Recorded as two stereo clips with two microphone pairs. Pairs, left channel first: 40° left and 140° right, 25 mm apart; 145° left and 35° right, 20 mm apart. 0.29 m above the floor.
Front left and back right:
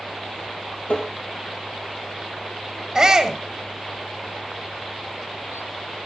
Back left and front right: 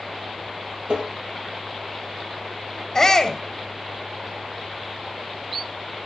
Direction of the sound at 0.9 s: Straight ahead.